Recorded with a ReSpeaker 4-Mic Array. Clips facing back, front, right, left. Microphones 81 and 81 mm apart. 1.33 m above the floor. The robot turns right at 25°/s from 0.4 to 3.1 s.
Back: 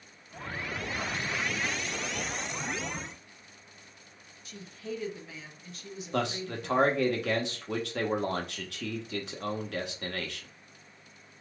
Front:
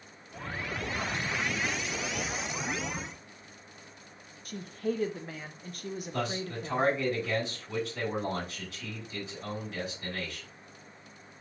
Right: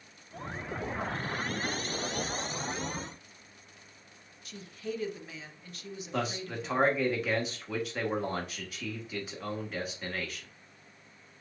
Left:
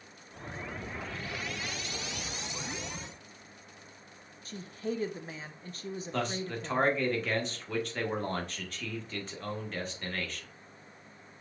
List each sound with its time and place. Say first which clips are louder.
4.5 s a woman speaking: front 7 dB, left 3 dB; 35° left, 0.7 m
6.1 s a man speaking: back 4 dB, right 1 dB; 175° right, 1.3 m